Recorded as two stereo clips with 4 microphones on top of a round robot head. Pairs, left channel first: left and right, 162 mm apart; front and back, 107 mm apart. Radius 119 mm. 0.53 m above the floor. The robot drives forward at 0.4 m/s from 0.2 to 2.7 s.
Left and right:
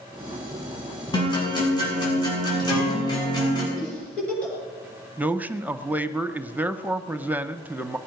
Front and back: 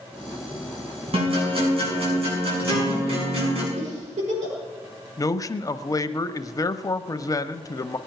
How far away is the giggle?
About 7.5 m.